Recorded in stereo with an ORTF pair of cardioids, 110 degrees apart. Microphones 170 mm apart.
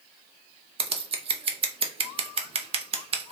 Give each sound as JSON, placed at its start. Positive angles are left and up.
{"t": 0.8, "sound": "scissors", "azimuth_deg": -35, "distance_m": 0.5}